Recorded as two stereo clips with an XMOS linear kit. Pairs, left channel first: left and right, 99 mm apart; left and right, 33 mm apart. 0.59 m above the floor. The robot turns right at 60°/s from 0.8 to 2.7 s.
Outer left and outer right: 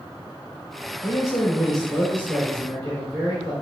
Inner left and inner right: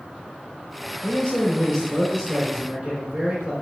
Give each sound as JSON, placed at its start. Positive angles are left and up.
{"t": 1.0, "sound": "a man speaking", "azimuth_deg": 125, "distance_m": 2.0}